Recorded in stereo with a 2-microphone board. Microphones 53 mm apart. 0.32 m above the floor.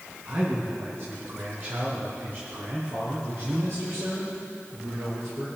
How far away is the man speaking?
About 3 m.